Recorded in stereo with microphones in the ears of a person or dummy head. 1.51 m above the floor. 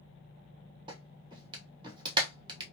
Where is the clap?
35° right (ahead or behind), 1.0 m.